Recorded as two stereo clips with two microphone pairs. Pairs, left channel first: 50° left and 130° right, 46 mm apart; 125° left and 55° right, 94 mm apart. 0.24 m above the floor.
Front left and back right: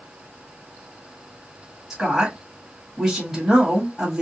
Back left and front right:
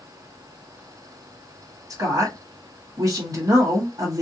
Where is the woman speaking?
60° right, 1.9 m.